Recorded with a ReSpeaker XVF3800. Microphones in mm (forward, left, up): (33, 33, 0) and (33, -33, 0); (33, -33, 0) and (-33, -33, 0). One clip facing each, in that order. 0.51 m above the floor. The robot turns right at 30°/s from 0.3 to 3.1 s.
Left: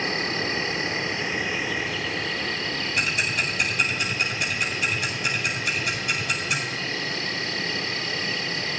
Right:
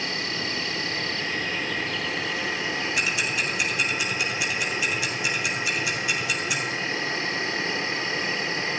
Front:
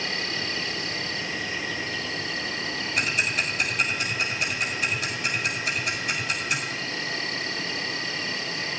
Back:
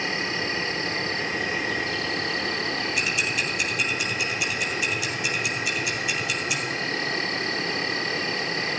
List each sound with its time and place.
0.0 s an insect: 125° left, 0.8 m; by 8.8 s 150° right, 0.8 m
3.0 s ticking: 45° left, 1.9 m